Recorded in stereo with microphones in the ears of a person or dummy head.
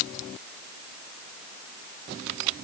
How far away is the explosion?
No explosion in this recording.